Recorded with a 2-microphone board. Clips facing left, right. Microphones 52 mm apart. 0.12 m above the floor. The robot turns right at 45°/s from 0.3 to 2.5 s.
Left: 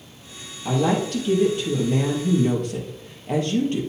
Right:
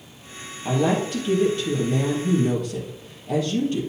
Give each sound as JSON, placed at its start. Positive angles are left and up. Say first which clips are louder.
{"t": 0.7, "sound": "a woman speaking", "louder": "even", "azimuth_deg": -25, "distance_m": 2.5}